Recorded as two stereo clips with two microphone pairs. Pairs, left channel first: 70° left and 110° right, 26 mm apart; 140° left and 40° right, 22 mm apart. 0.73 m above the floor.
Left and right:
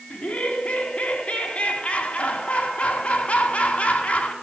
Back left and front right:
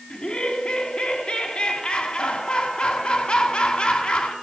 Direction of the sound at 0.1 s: 90° left.